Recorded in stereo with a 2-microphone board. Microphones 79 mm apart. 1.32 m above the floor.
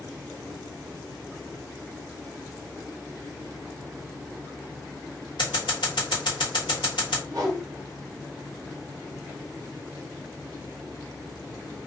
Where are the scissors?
75° left (ahead or behind), 1.2 m.